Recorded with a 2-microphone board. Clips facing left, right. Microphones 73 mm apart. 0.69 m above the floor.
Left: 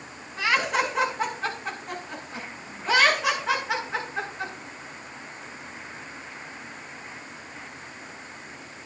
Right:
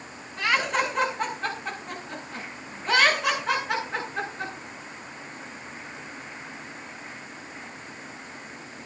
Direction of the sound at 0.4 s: 5° left (ahead or behind).